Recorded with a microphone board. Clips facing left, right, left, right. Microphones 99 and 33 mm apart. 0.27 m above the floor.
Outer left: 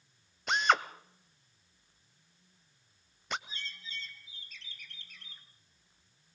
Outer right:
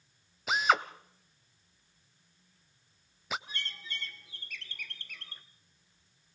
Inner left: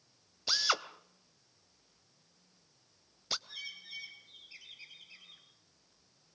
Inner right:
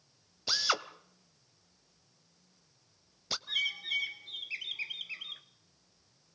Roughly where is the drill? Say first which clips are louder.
Outer right 1 dB, even; centre.